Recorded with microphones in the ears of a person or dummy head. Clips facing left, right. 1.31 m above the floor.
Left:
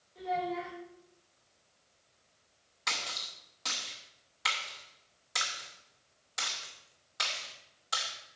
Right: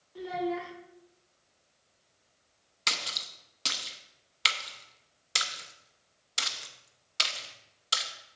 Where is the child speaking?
80° right, 1.9 m.